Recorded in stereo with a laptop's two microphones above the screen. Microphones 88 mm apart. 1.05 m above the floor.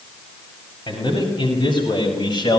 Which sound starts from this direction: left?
A man speaking, at 0.9 s.